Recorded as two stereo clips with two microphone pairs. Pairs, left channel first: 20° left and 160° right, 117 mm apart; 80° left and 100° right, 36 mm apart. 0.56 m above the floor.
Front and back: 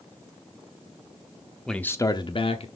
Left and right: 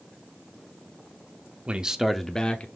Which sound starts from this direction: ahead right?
A man speaking, at 1.7 s.